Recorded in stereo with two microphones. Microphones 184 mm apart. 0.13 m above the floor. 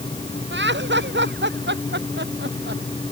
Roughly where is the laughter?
Right.